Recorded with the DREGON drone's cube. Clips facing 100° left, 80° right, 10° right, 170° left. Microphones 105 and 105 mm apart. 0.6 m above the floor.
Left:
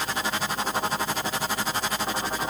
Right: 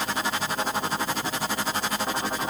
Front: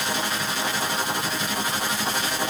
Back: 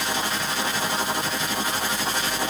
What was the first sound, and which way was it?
Only background noise.